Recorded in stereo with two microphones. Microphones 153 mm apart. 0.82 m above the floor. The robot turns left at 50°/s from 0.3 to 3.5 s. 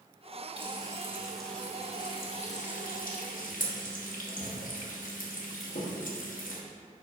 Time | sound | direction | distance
0.6 | frying | 35° right (ahead or behind) | 1.2 m